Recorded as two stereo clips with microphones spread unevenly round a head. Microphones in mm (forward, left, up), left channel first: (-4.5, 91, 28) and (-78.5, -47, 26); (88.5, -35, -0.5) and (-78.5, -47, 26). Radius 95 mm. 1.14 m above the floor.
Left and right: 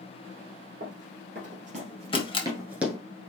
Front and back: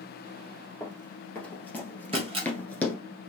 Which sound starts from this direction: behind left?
A camera shutter, at 2.1 s.